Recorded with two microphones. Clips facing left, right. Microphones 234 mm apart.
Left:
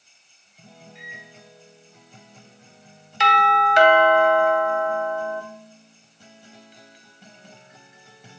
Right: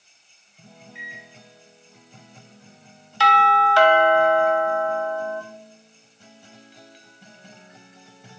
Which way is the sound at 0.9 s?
65° right (ahead or behind).